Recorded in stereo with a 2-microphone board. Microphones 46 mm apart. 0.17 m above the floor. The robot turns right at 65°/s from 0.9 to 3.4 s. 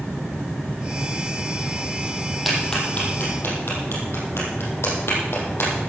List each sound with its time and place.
2.5 s a clap: centre (ahead or behind), 5 m; by 5.7 s 60° left (ahead or behind), 5 m